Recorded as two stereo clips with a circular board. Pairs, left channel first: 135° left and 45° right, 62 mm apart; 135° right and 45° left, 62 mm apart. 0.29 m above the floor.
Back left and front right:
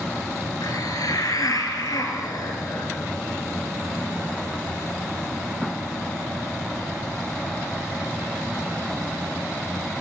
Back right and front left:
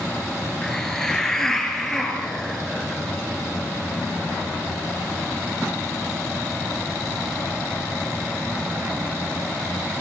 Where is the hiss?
140° left, 3.5 m.